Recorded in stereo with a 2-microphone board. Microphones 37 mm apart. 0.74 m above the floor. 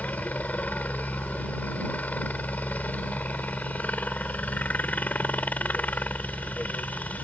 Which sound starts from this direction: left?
A helicopter, at 0.0 s.